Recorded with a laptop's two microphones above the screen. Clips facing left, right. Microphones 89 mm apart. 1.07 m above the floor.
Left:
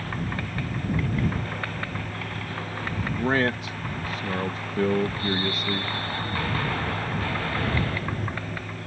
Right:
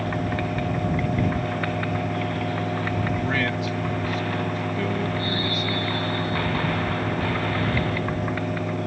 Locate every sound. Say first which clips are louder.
0.0 s a fan: right 6 dB; 90° right
3.2 s a man speaking: left 1 dB; 40° left (ahead or behind)